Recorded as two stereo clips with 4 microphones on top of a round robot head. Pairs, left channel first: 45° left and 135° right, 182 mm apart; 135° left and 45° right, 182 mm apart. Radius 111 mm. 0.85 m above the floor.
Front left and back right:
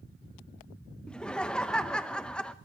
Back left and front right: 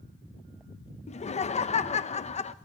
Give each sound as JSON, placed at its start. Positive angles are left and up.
{"t": 1.1, "sound": "laughter", "azimuth_deg": 125, "distance_m": 0.7}